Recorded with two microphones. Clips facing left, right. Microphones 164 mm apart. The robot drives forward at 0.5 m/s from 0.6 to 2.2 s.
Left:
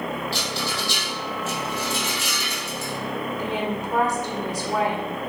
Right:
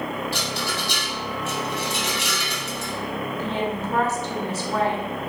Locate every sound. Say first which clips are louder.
0.3 s a rattle: even; 55° right (ahead or behind), 2.5 m; by 2.9 s 70° right (ahead or behind), 2 m
3.3 s a woman speaking: right 1 dB; 15° left (ahead or behind), 1.4 m